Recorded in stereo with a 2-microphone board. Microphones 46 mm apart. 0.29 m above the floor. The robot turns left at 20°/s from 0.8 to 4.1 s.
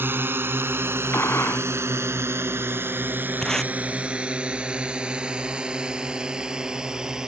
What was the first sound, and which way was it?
A drone, 50° right (ahead or behind).